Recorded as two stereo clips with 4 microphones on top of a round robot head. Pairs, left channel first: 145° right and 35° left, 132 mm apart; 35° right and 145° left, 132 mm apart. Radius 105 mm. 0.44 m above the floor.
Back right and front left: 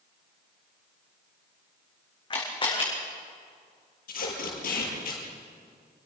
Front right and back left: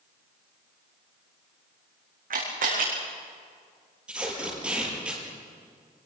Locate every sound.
2.3 s a camera shutter: 160° left, 8 m
4.1 s tape being pulled: 135° right, 8 m